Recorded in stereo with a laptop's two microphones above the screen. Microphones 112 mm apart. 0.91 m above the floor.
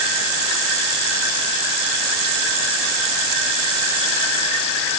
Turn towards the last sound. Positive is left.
No sound to turn to.